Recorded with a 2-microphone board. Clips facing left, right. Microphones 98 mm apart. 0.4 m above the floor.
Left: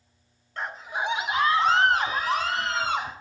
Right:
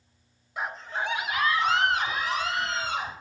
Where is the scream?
10° right (ahead or behind), 0.9 m; by 3.1 s 45° left (ahead or behind), 3.5 m.